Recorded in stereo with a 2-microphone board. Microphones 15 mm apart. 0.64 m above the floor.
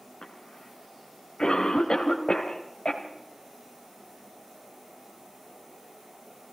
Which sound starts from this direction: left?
A cough, at 0.2 s.